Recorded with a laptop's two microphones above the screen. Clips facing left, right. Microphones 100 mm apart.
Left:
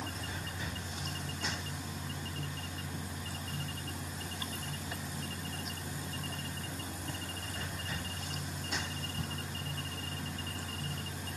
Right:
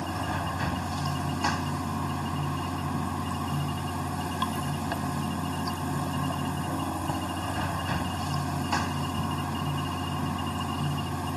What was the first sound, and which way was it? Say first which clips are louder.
Running water: right 11 dB; 85° right.